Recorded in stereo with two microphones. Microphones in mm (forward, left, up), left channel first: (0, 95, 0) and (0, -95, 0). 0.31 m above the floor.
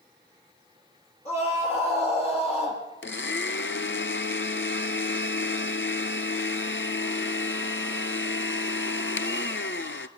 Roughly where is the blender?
Left.